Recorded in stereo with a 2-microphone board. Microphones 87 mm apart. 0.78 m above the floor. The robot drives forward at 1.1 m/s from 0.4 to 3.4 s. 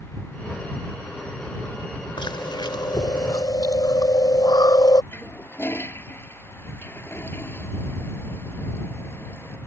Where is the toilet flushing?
25° left (ahead or behind).